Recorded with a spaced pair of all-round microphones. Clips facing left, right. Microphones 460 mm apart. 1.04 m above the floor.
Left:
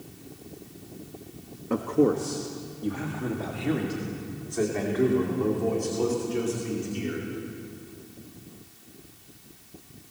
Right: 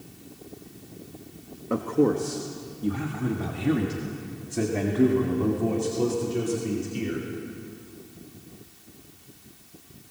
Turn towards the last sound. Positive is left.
turn(degrees=-55)  # may be behind; listen again after turning